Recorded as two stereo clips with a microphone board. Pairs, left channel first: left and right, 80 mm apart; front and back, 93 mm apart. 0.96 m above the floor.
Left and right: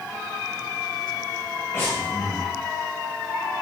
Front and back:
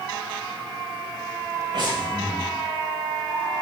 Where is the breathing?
150° left, 1.1 m.